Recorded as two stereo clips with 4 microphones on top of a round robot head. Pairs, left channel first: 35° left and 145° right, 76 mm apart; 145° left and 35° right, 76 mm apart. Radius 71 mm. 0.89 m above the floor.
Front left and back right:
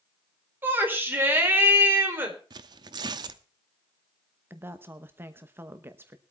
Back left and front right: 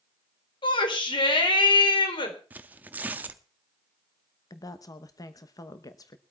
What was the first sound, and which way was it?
A shout, 155° left.